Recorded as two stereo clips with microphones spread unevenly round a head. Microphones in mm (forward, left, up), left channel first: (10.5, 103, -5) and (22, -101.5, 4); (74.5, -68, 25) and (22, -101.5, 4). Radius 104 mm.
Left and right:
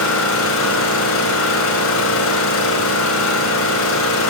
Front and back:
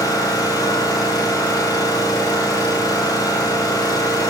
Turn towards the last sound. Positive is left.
turn(degrees=70)